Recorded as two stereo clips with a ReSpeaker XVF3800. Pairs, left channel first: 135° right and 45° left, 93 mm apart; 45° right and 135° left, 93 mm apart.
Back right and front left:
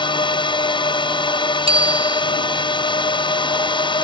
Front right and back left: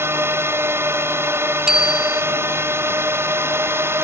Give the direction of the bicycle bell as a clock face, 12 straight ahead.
10 o'clock.